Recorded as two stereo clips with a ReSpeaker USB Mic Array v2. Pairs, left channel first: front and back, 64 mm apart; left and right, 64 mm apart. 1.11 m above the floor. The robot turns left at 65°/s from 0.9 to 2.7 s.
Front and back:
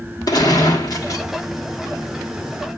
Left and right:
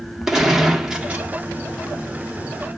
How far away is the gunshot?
About 1.4 m.